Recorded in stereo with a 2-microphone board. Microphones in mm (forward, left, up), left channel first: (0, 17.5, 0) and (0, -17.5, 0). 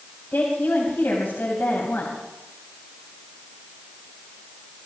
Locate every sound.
0.3 s a woman speaking: 75° left (ahead or behind), 4 m